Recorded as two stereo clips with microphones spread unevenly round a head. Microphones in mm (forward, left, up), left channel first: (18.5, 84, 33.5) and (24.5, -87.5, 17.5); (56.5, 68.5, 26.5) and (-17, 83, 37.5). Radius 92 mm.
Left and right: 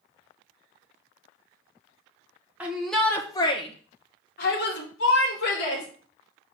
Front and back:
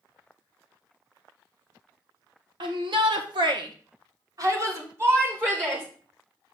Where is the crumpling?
No crumpling in this recording.